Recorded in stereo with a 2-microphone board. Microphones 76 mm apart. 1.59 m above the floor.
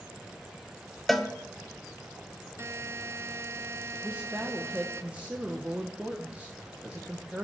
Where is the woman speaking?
15° right (ahead or behind), 1.0 m.